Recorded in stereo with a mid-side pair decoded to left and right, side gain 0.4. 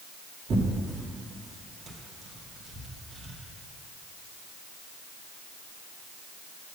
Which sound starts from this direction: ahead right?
Tearing paper, at 0.5 s.